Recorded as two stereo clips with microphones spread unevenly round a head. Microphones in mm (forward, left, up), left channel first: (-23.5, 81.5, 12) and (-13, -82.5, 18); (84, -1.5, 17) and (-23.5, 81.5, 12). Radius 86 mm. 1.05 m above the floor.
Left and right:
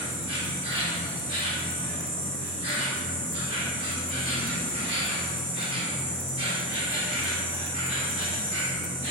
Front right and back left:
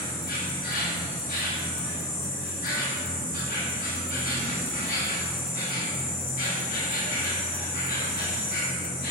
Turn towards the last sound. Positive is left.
turn(degrees=-25)